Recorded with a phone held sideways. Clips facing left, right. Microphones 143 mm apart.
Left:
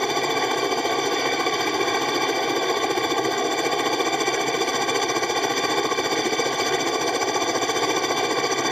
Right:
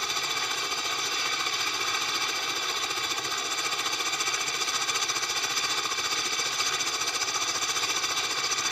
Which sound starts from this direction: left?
A helicopter, at 0.0 s.